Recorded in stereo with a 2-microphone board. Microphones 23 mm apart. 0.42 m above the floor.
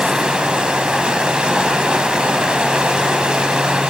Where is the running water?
50° right (ahead or behind), 1.1 m.